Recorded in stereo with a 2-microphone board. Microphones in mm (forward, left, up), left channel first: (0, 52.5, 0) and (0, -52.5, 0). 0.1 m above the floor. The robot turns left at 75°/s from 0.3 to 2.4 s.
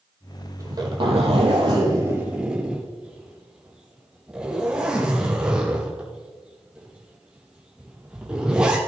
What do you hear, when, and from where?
0.6 s a zipper: 30° right (ahead or behind), 4 m; by 8.8 s 10° right (ahead or behind), 4 m